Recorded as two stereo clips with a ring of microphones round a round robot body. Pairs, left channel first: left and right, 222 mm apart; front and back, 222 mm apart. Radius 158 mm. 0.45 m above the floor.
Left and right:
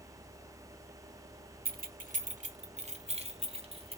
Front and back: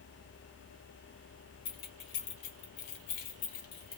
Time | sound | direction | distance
1.6 | keys jangling | 50° right | 1.2 m